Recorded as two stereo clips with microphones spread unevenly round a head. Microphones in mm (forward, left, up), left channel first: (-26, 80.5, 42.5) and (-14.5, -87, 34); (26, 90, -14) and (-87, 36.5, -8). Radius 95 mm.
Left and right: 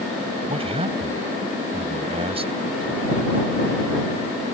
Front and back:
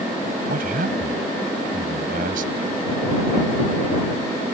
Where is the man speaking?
145° right.